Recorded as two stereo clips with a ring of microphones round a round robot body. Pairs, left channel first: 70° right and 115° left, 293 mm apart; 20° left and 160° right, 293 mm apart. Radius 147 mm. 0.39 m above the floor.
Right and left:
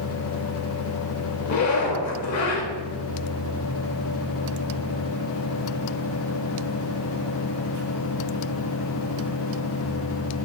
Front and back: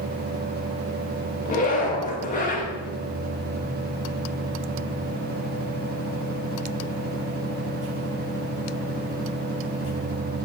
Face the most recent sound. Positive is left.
turn(degrees=-35)